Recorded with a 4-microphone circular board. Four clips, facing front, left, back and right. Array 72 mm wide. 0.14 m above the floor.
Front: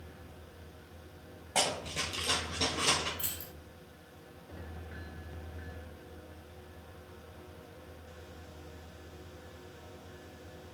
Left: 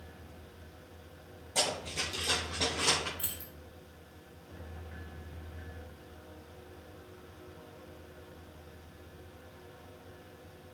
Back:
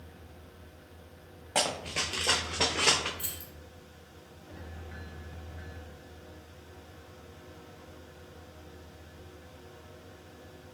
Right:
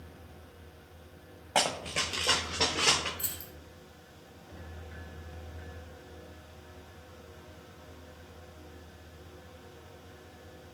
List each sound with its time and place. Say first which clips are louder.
1.6 s running footsteps: right 5 dB, back 2 dB; 110° right, 0.6 m; by 3.1 s 165° right, 1.0 m
3.2 s keys jangling: right 1 dB, even; 80° left, 1.1 m